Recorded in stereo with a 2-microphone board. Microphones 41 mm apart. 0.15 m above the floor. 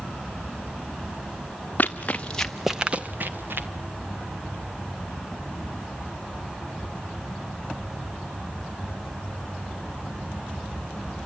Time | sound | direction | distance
1.8 | running footsteps | 45° left (ahead or behind) | 1.2 m